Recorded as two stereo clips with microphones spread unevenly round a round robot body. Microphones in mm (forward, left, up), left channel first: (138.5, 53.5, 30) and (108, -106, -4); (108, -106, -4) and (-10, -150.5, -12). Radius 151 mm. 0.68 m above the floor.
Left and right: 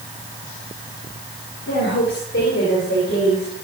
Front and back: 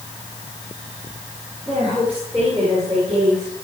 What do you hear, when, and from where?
1.7 s a woman speaking: 110° left, 2.5 m; by 3.5 s 130° left, 4 m